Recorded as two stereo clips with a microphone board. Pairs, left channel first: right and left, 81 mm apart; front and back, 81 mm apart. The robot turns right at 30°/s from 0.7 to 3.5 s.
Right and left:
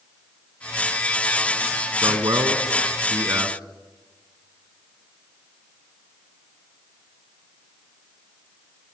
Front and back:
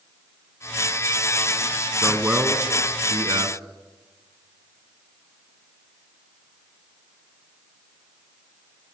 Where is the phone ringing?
No phone ringing in this recording.